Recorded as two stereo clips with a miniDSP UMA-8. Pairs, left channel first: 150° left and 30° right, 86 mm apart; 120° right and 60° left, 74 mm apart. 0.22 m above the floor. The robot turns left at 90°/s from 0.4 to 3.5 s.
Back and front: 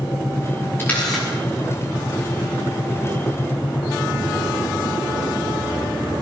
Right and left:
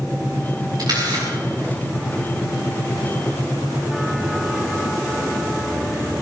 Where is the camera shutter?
90° left, 7 m; by 1.3 s 45° left, 7 m.